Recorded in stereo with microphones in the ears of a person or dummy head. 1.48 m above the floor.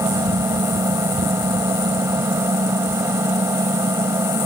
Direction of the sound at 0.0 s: 20° right (ahead or behind).